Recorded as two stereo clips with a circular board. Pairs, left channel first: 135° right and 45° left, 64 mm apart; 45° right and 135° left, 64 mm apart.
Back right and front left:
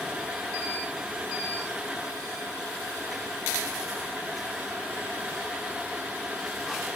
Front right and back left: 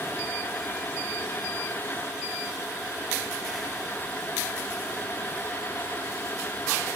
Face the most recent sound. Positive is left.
No sound to turn to.